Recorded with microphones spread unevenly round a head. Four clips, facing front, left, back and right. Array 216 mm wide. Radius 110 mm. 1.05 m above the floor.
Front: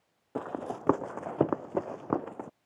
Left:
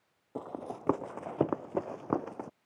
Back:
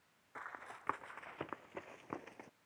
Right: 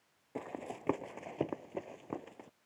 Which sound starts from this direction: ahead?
Running footsteps, at 0.3 s.